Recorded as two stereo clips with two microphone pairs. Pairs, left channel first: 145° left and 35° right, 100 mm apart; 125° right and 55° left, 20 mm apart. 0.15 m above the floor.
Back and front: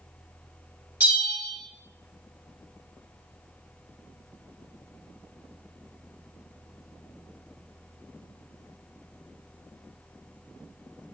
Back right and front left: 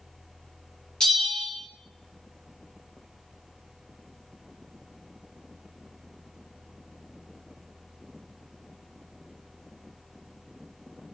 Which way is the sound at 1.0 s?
100° right.